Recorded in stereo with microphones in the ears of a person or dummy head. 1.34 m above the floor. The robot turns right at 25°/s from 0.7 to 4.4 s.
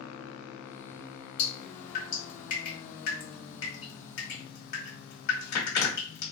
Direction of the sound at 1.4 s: 40° left (ahead or behind).